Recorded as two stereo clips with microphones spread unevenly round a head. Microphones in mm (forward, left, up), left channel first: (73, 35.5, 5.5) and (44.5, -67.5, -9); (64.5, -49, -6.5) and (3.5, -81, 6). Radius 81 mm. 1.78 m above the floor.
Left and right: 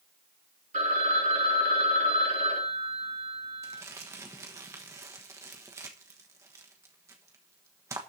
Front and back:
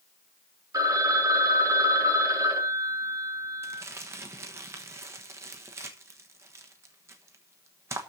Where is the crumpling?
175° right, 1.1 m.